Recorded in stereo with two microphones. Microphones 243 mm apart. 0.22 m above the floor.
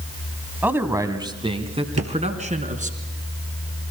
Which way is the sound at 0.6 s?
5° right (ahead or behind).